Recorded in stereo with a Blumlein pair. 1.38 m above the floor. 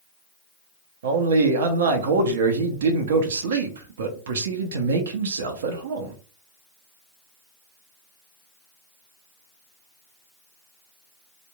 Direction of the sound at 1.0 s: 60° right.